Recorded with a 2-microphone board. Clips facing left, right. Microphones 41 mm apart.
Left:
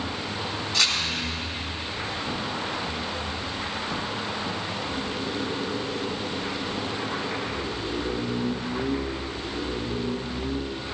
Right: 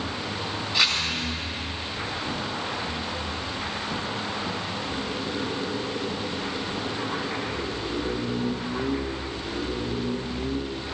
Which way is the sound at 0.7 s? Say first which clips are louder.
Right 2 dB; 15° right (ahead or behind).